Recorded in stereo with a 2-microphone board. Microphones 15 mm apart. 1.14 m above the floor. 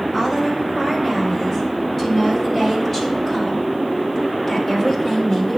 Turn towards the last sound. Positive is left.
turn(degrees=15)  # may be behind; listen again after turning